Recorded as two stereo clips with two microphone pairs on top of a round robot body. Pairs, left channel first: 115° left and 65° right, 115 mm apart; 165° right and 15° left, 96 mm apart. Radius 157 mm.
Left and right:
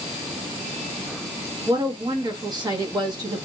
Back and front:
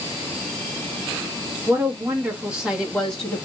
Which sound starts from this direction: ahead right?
A woman speaking, at 1.7 s.